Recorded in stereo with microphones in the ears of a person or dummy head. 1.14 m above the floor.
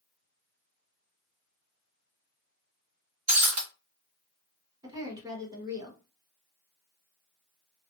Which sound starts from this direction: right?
Breaking glass, at 3.3 s.